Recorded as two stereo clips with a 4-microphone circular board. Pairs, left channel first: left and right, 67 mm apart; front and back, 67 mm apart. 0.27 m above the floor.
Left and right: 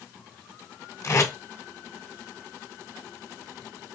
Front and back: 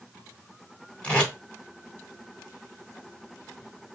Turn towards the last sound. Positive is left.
turn(degrees=70)